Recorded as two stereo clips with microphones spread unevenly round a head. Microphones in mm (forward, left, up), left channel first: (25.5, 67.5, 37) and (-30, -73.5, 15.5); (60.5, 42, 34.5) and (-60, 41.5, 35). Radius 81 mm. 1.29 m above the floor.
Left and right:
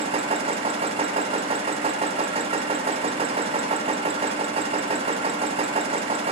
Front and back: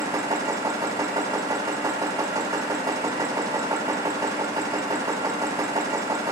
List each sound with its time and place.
0.0 s a machine running: 135° right, 0.7 m